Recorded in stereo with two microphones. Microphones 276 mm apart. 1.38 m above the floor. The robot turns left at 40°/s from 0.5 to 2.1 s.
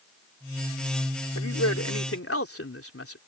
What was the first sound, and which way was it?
A man speaking, 85° left.